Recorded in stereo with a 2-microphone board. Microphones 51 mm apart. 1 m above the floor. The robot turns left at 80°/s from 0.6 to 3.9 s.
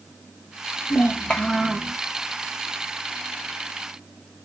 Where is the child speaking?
55° left, 0.6 m; by 1.9 s 25° right, 0.6 m.